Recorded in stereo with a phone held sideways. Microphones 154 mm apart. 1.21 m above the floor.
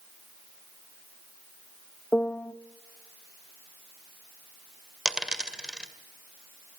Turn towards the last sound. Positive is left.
turn(degrees=-5)  # may be behind; listen again after turning